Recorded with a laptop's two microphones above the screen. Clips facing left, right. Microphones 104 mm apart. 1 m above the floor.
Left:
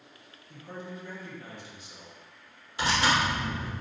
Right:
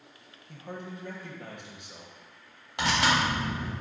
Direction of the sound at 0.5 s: 60° right (ahead or behind).